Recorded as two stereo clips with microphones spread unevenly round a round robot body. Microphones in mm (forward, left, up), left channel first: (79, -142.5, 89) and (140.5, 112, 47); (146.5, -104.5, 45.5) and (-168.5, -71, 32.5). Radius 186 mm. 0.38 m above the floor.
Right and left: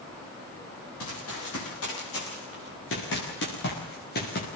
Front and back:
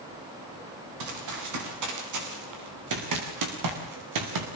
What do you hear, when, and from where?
1.0 s running footsteps: 155° right, 9 m; by 4.5 s 170° right, 5 m